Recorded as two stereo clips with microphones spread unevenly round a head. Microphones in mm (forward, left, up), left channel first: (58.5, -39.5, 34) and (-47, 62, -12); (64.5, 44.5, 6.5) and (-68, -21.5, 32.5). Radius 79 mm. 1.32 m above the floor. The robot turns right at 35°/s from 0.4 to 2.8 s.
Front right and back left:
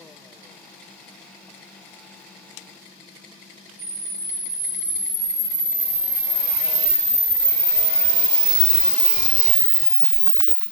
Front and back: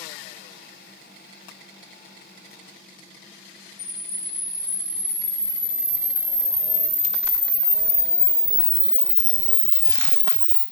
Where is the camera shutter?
85° left, 1.8 m.